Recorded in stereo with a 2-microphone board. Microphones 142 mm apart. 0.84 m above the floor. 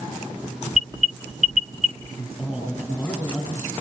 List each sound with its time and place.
0.7 s an alarm: 60° right (ahead or behind), 1.0 m
2.2 s a man speaking: 10° left (ahead or behind), 7 m